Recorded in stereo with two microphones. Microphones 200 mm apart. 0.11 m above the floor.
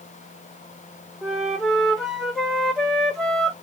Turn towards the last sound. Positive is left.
turn(degrees=5)  # may be behind; listen again after turning